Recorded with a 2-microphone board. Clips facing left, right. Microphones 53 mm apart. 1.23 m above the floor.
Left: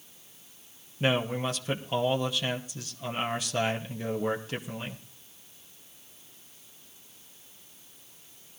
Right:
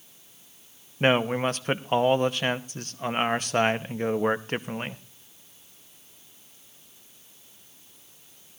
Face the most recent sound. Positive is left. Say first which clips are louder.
# right 5 dB
turn(degrees=-45)  # may be behind; listen again after turning